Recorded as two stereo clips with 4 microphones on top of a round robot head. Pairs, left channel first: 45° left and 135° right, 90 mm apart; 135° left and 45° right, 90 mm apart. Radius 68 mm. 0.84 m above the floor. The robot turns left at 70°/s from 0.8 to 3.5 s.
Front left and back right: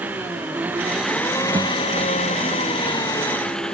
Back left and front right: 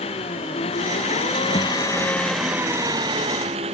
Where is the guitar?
175° left; by 1.8 s 160° left.